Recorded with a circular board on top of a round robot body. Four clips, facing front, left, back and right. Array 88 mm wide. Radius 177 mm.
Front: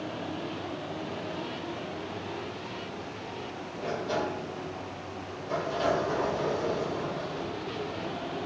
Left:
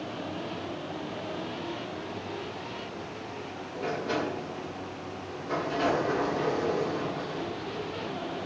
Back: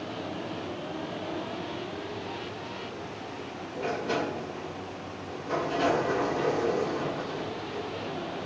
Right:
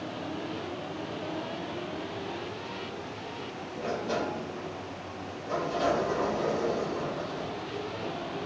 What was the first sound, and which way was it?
A sliding door, 125° left.